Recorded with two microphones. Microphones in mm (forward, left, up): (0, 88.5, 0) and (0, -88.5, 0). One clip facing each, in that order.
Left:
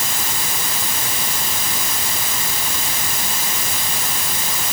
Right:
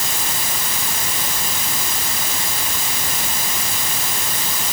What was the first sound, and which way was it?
Only background noise.